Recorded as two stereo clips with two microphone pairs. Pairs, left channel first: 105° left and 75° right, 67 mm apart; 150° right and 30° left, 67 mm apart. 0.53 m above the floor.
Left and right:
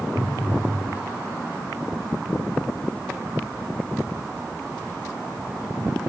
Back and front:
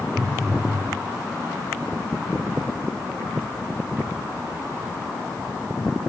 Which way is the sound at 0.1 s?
95° left.